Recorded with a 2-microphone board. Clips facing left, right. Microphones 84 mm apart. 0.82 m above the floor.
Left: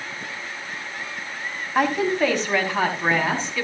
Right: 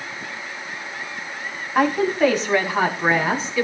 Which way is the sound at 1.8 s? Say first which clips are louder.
Right 2 dB; centre (ahead or behind).